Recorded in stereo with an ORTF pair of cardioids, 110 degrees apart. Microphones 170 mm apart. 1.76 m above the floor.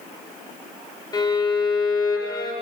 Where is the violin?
25° left, 4.5 m.